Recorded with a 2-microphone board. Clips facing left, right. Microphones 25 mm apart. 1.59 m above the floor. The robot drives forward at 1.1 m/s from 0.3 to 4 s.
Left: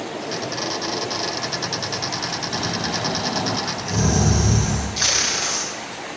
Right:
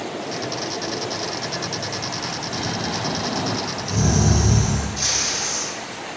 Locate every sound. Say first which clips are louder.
2.5 s snoring: even; 15° left (ahead or behind), 1.6 m; by 4.9 s 10° left (ahead or behind), 3 m
5.0 s tape being pulled: left 4 dB; 75° left (ahead or behind), 0.9 m